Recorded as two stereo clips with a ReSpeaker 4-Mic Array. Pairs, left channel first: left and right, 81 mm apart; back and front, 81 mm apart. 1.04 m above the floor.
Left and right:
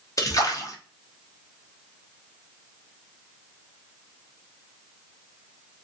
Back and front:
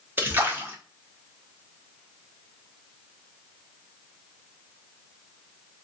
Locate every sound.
0.2 s a splash: 55° left, 0.7 m